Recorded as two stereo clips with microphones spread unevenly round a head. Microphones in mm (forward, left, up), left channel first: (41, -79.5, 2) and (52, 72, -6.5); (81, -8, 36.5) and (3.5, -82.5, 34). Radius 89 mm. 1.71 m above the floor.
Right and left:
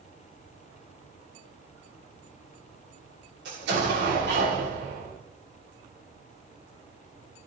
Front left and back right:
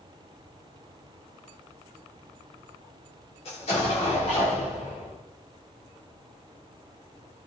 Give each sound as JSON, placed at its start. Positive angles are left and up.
{"t": 3.5, "sound": "an explosion", "azimuth_deg": 90, "distance_m": 6.5}